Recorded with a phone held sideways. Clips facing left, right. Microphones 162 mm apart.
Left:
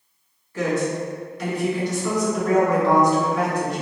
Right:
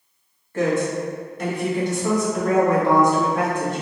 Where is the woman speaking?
50° right (ahead or behind), 1.6 m.